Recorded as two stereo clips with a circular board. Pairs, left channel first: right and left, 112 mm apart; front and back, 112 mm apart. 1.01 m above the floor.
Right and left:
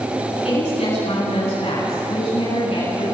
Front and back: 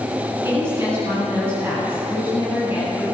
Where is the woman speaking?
110° right, 10 m; by 3.0 s 105° right, 8.5 m.